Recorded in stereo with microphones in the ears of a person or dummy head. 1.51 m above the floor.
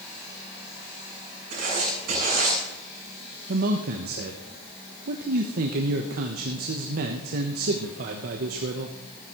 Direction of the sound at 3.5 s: 55° right (ahead or behind).